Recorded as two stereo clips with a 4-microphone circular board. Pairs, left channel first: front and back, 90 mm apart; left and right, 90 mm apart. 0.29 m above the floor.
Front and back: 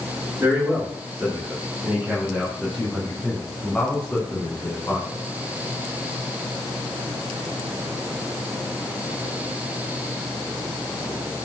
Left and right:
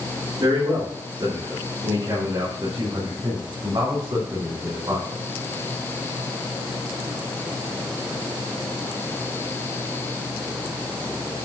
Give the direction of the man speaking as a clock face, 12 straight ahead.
4 o'clock.